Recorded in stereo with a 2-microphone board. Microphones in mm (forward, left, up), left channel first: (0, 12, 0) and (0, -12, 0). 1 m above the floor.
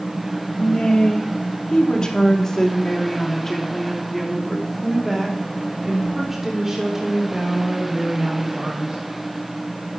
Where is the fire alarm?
No fire alarm in this recording.